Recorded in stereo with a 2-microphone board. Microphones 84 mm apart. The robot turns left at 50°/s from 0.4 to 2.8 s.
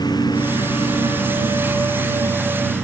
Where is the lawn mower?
55° left (ahead or behind); by 2.9 s 5° left (ahead or behind).